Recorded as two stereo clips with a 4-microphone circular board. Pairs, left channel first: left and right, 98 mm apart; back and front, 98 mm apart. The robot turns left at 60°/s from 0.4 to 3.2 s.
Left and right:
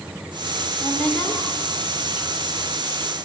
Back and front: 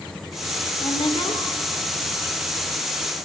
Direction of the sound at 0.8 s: Straight behind.